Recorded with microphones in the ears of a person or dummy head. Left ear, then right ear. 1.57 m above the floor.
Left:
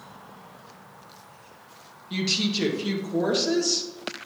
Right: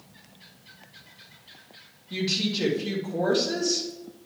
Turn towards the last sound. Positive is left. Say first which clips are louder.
# left 1 dB
turn(degrees=80)